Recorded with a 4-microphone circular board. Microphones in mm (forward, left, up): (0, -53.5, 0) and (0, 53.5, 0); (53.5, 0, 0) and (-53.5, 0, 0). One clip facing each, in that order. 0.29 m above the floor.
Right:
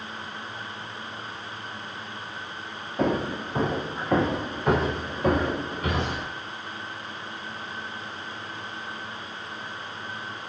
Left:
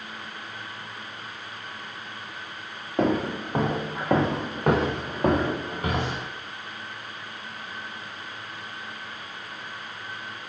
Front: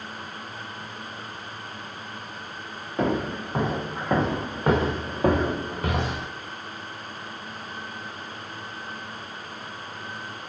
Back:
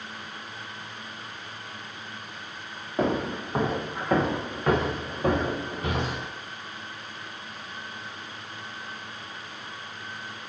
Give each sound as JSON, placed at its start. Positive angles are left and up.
{"t": 3.0, "sound": "footsteps", "azimuth_deg": 105, "distance_m": 1.3}